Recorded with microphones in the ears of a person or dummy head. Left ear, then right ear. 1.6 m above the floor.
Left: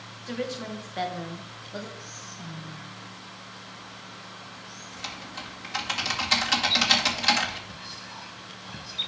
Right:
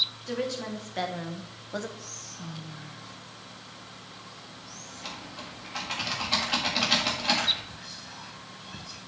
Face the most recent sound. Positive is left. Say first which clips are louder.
# left 2 dB
turn(degrees=30)  # may be behind; listen again after turning